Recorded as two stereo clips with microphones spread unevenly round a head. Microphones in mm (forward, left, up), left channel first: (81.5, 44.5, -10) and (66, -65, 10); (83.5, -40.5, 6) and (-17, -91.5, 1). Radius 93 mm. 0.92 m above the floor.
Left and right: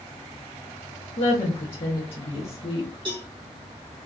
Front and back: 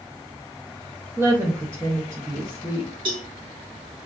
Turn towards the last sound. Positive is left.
turn(degrees=-150)